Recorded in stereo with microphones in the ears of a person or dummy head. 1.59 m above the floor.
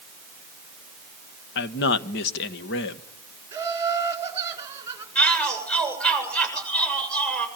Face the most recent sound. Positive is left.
turn(degrees=5)  # may be behind; listen again after turning